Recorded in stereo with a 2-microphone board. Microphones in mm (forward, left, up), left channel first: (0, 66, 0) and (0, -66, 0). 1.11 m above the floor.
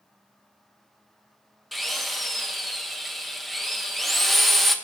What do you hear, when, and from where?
1.7 s a drill: centre (ahead or behind), 1.0 m